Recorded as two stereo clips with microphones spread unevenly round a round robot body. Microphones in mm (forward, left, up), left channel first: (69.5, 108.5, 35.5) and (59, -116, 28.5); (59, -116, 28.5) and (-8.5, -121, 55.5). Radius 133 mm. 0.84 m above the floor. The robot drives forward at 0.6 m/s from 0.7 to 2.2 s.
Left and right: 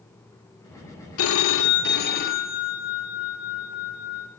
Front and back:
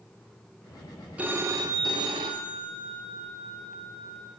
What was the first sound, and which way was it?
A phone ringing, 95° left.